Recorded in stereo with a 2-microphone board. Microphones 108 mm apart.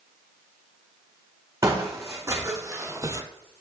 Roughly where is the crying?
I don't hear crying.